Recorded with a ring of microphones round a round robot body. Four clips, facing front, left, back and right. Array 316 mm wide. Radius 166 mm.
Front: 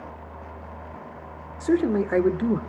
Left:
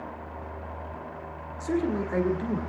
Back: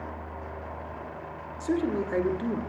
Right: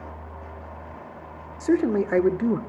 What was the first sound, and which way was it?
A man speaking, 55° right.